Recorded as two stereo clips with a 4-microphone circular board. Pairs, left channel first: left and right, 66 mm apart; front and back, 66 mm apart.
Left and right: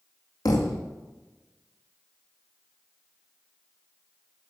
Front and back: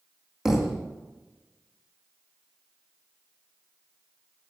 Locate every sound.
0.5 s a thud: 95° left, 1.8 m